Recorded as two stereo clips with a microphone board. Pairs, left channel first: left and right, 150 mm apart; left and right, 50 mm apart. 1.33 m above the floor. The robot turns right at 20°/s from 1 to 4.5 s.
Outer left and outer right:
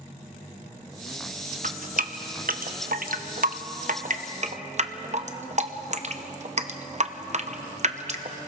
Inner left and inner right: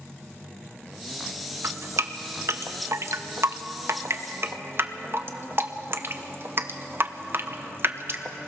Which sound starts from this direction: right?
Dripping, at 1.6 s.